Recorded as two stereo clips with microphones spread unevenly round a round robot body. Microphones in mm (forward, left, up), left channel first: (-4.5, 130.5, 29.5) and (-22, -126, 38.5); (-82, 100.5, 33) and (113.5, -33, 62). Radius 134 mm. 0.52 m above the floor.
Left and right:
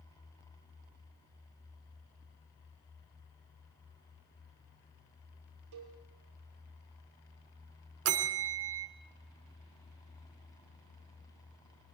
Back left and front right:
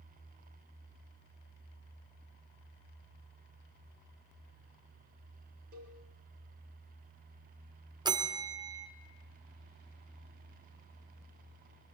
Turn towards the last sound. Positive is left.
turn(degrees=-110)